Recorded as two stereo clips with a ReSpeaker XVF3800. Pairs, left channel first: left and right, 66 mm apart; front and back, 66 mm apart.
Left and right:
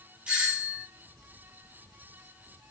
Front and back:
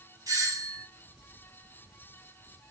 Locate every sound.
0.3 s a doorbell: 160° right, 2.5 m